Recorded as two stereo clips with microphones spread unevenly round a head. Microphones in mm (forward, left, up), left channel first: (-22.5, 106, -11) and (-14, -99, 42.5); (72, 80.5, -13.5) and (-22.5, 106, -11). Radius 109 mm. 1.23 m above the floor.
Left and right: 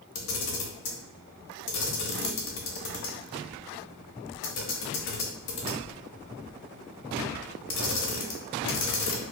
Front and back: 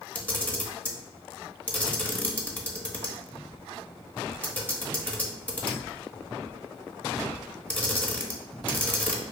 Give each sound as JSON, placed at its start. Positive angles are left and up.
{"t": 0.1, "sound": "a camera shutter", "azimuth_deg": 60, "distance_m": 0.9}